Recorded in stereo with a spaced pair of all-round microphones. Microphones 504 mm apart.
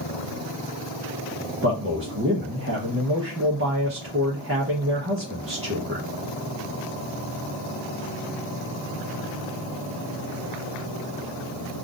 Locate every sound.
1.6 s a man speaking: 25° right (ahead or behind), 0.7 m